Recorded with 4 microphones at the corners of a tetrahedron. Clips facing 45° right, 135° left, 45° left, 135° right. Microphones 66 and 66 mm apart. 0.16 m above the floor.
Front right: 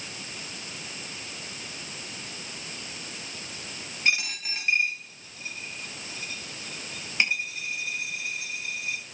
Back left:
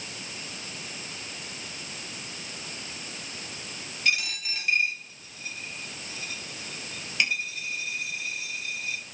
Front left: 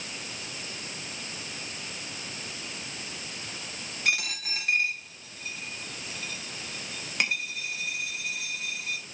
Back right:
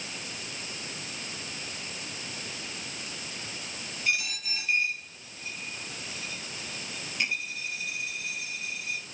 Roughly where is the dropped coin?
Ahead.